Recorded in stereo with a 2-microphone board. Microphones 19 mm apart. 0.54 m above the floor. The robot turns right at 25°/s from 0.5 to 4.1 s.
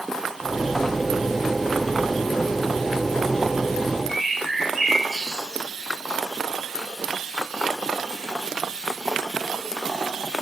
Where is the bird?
5° left (ahead or behind), 3.5 m.